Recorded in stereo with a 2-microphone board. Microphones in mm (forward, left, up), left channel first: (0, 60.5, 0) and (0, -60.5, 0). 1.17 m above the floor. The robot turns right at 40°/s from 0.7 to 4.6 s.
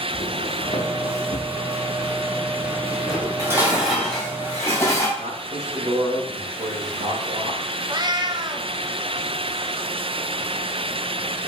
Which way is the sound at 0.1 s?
55° left (ahead or behind).